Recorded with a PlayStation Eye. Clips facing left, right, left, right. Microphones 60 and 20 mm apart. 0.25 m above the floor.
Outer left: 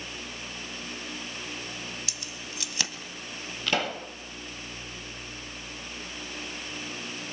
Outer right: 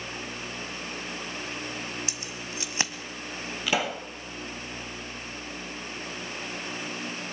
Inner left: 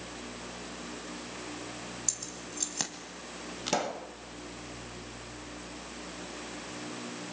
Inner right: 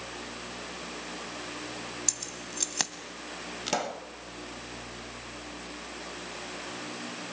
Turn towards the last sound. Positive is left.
turn(degrees=-5)  # may be behind; listen again after turning